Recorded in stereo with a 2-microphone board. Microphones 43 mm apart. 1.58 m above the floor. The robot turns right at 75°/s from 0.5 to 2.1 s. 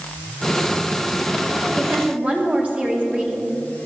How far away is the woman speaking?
About 2.5 m.